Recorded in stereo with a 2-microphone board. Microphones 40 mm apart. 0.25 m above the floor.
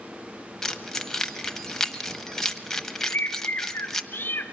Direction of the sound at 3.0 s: 60° left (ahead or behind).